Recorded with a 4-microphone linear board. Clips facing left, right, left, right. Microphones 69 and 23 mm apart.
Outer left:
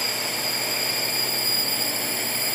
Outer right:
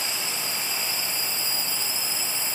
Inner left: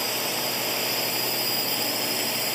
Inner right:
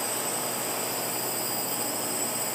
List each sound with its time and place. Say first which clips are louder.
0.0 s a drone: outer left 3 dB, inner left 4 dB; 55° left (ahead or behind); by 2.5 s 60° left (ahead or behind)